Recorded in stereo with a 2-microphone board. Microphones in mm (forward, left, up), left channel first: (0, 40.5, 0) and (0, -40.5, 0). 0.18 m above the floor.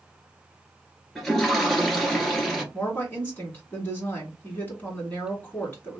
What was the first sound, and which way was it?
A toilet flushing, 5° left (ahead or behind).